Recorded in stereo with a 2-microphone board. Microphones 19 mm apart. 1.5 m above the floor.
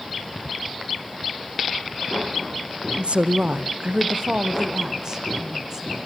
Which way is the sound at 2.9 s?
75° right (ahead or behind).